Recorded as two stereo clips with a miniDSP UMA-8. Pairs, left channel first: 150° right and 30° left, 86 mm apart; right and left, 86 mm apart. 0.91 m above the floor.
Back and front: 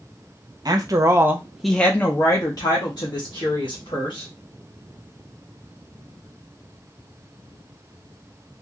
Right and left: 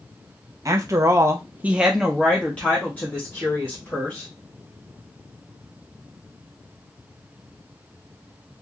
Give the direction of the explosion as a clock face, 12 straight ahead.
I don't hear an explosion.